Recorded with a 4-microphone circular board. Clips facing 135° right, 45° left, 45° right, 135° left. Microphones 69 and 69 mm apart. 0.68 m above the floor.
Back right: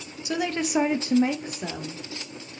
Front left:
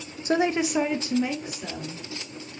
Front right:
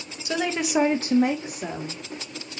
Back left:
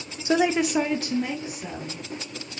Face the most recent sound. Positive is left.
turn(degrees=-95)